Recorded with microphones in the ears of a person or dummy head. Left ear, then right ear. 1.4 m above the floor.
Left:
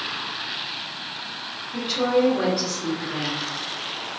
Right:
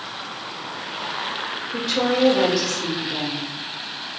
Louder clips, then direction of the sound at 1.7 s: Even; 80° right.